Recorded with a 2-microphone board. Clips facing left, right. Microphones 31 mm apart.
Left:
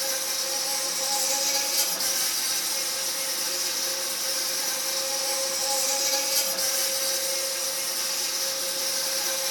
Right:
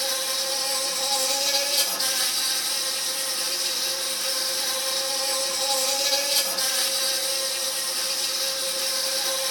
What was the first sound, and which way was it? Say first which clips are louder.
An insect: right 3 dB; 50° right (ahead or behind).